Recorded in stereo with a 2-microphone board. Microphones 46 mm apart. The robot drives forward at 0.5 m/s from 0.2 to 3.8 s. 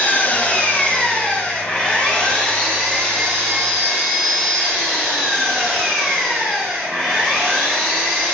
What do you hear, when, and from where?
0.0 s an engine running: 40° left (ahead or behind), 1.2 m; by 8.3 s 15° left (ahead or behind), 3 m